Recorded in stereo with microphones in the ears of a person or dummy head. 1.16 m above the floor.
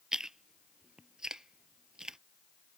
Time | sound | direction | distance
0.1 | chewing | centre (ahead or behind) | ?